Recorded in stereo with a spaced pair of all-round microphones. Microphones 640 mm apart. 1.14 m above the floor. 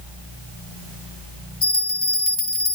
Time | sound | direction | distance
1.6 | a bell | 40° left (ahead or behind) | 2 m